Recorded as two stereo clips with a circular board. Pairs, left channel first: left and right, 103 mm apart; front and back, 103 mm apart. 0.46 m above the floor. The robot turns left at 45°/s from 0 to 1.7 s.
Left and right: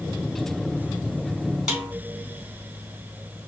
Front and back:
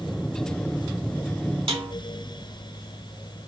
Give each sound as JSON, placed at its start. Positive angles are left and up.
{"t": 1.7, "sound": "a snare drum", "azimuth_deg": -170, "distance_m": 1.3}